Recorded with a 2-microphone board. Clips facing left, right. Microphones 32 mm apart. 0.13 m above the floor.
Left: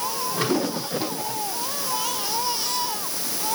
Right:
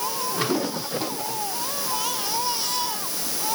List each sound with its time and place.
Only background noise.